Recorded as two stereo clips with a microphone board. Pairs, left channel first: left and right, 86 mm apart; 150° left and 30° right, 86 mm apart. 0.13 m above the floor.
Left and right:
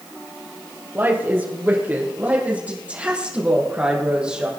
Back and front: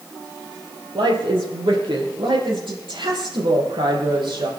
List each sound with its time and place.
0.9 s a woman speaking: 25° right, 4.5 m; by 4.5 s 10° right, 6 m